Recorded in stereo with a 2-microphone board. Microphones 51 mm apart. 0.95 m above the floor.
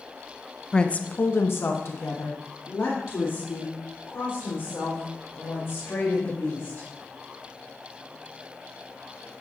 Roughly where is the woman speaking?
Centre.